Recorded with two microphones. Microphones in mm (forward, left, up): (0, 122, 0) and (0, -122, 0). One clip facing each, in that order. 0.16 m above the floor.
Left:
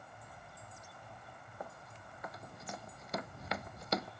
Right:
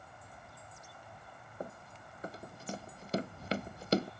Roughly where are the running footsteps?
Right.